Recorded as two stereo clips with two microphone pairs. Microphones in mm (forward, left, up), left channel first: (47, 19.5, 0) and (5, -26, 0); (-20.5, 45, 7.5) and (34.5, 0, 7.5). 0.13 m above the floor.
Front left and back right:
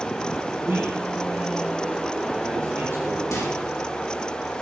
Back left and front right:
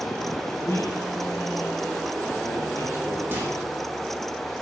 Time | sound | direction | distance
0.6 | a man speaking | straight behind | 3 m
3.3 | a microwave | 20° left | 6.5 m